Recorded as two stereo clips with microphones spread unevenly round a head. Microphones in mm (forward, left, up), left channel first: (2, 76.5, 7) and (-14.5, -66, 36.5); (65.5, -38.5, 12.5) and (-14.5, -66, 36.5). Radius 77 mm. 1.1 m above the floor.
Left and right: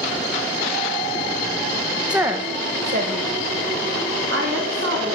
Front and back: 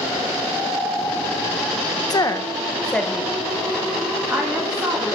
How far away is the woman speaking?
About 0.9 m.